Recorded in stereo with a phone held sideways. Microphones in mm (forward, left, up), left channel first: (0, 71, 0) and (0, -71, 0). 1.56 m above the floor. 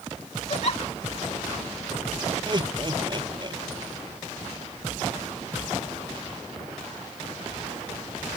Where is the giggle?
50° left (ahead or behind).